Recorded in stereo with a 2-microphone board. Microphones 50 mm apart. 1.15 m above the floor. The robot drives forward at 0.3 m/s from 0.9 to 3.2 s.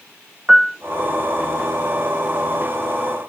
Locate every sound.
0.5 s a piano: 10° right (ahead or behind), 0.6 m